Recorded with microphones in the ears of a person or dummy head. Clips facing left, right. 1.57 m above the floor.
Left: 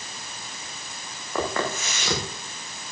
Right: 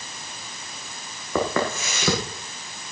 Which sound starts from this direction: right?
Footsteps, at 1.4 s.